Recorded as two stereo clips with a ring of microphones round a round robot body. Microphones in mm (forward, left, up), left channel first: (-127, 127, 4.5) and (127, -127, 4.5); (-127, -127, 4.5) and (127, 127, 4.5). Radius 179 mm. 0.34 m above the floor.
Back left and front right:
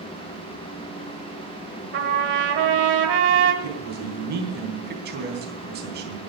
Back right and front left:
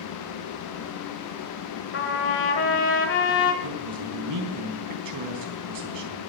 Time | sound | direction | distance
1.9 | a trumpet | 90° right | 1.4 m
3.6 | a man speaking | 15° left | 3.5 m